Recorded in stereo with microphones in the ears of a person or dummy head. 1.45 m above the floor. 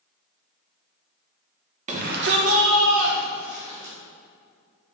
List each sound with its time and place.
1.9 s a shout: 35° right (ahead or behind), 1.2 m; by 3.9 s 60° right (ahead or behind), 2.5 m